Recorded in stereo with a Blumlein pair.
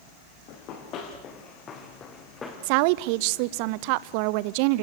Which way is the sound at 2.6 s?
45° right.